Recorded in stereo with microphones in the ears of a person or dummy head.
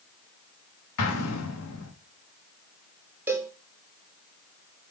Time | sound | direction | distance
1.0 | an explosion | 85° left | 2 m
3.3 | a cowbell | 5° right (ahead or behind) | 0.7 m